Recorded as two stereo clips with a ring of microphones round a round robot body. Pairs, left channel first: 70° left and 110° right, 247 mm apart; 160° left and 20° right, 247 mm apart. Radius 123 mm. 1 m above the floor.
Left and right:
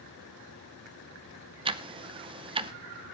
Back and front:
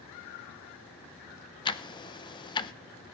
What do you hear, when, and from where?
1.6 s ticking: 155° right, 0.6 m